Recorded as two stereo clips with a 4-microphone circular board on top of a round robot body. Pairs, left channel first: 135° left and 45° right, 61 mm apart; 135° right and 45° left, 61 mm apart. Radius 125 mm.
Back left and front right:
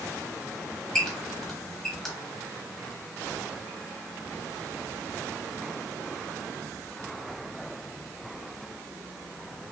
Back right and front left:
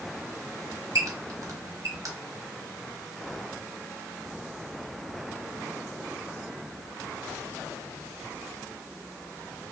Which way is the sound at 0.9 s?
50° left.